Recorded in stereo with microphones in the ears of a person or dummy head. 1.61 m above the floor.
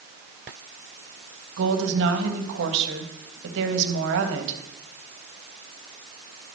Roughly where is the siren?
I don't hear a siren.